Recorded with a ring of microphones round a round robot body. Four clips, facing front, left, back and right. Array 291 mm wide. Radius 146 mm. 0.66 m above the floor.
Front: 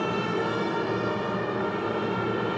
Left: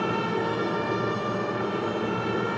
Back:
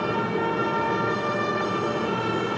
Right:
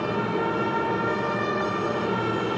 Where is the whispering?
I don't hear whispering.